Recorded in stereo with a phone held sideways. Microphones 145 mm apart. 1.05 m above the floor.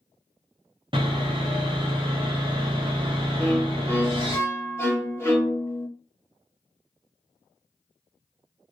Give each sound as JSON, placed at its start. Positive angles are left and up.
{"t": 0.9, "sound": "sawing", "side_deg": -35, "distance_m": 0.7}
{"t": 3.4, "sound": "a violin", "side_deg": 20, "distance_m": 0.7}